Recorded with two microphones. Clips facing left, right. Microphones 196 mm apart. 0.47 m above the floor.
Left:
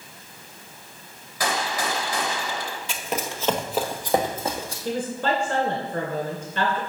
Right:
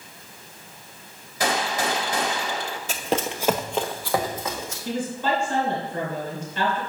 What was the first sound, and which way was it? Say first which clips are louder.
A gunshot: right 2 dB; 25° right (ahead or behind).